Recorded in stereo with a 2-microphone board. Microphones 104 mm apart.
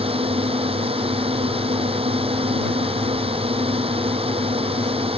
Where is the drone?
65° right (ahead or behind).